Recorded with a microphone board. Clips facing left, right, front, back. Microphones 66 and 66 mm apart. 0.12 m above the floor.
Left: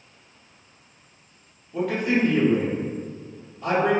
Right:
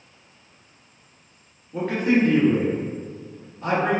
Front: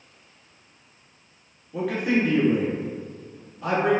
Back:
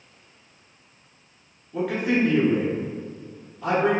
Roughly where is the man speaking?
Right.